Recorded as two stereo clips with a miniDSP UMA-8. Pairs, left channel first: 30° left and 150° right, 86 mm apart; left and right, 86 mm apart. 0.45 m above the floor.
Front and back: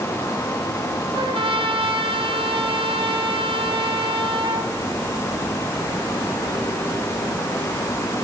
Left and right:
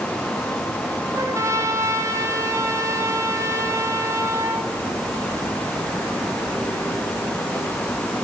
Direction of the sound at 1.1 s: 145° right.